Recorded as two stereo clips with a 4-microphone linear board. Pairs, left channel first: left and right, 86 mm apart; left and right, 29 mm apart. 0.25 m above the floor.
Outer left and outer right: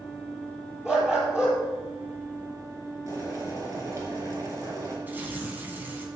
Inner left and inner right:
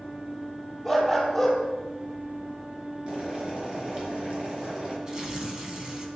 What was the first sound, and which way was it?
A dog barking, 10° right (ahead or behind).